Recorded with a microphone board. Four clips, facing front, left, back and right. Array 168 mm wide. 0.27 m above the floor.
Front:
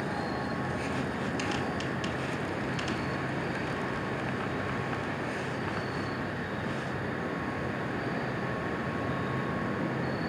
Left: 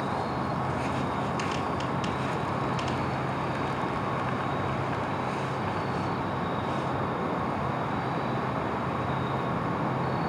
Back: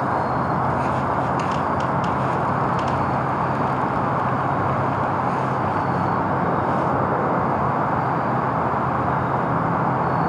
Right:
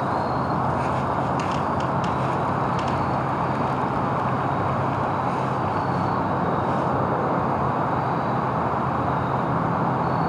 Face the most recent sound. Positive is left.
turn(degrees=-150)